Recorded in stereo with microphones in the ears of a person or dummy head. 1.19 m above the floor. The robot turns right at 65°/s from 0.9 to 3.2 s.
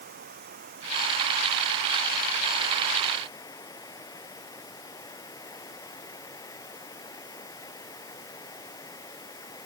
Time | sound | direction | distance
0.0 | running water | 135° right | ?